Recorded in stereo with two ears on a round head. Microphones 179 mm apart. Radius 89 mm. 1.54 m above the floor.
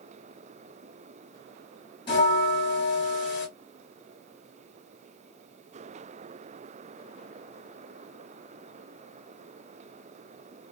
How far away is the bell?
About 1.6 m.